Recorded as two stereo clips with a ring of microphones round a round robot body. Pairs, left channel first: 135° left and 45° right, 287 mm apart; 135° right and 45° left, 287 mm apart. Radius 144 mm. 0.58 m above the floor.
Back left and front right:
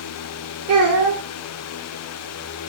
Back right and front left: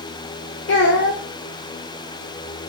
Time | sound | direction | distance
0.7 | a child speaking | 95° right | 1.5 m